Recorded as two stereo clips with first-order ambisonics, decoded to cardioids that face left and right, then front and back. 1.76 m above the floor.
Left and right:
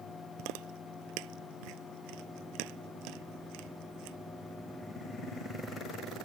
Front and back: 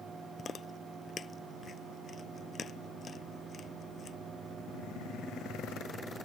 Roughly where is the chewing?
Right.